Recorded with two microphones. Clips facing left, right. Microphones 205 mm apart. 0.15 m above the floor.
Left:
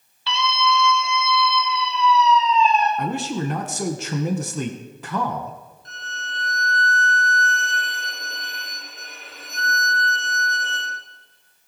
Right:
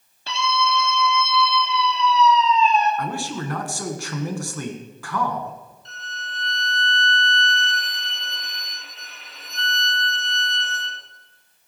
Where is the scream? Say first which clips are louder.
Left 1 dB; 45° right (ahead or behind), 3.5 m; by 2.9 s 80° right, 6 m.